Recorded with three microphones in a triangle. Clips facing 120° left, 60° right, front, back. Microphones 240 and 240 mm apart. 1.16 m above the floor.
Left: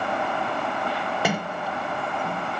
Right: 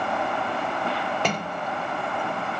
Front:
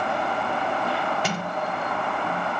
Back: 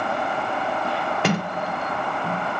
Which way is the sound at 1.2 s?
160° right.